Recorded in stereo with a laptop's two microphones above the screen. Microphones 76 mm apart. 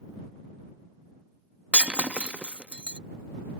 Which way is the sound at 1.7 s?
15° right (ahead or behind).